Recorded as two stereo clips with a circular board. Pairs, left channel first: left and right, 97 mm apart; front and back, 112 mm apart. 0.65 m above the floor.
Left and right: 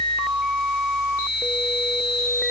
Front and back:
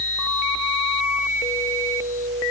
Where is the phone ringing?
No phone ringing in this recording.